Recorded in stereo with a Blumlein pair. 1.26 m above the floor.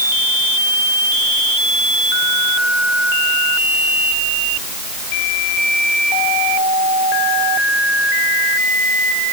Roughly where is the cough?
No cough in this recording.